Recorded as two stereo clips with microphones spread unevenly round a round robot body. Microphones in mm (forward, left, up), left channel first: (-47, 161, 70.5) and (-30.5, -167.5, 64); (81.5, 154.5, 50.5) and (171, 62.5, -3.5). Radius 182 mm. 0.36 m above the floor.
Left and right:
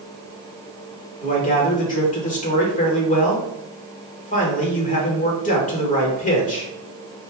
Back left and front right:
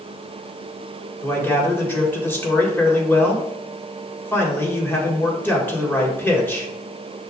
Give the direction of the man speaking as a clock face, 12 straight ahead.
11 o'clock.